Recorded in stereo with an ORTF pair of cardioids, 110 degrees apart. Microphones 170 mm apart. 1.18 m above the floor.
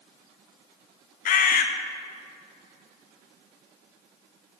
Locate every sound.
1.2 s a bird: 50° left, 0.9 m